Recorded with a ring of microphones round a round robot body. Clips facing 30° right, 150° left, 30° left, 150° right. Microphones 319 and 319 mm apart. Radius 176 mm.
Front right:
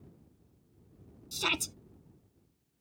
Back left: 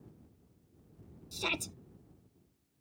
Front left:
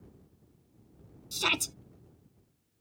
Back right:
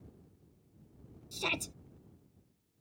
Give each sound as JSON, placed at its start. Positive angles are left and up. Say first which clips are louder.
{"t": 1.3, "sound": "a shout", "louder": "front right 2 dB, front left 3 dB", "azimuth_deg": 0}